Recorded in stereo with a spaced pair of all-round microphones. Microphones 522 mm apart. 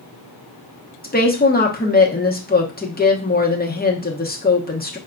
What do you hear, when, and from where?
1.0 s a woman speaking: 20° left (ahead or behind), 1.0 m